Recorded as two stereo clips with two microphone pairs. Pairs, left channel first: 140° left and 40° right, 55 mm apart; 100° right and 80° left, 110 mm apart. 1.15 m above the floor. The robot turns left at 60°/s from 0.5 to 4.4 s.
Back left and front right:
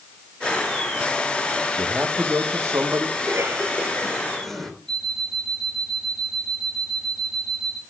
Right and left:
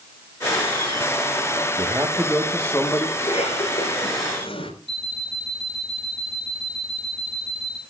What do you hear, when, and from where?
1.8 s a man speaking: 30° left, 1.4 m; by 3.1 s 50° right, 1.4 m
3.2 s a cough: 60° right, 4 m; by 4.7 s 135° right, 4 m
4.9 s an alarm clock: 135° right, 2.5 m